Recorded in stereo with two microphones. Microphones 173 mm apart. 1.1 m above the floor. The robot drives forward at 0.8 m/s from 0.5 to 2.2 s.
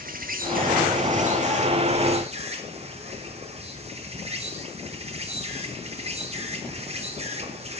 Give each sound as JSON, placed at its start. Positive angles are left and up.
{"t": 0.0, "sound": "an insect", "side_deg": -60, "distance_m": 2.5}